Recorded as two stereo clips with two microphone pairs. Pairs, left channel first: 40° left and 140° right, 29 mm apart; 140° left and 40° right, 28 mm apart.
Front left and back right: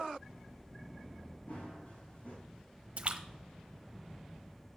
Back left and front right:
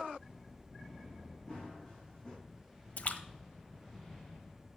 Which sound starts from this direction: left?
Running footsteps, at 1.5 s.